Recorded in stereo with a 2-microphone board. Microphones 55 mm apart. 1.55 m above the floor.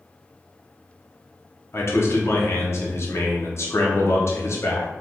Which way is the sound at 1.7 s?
50° left (ahead or behind).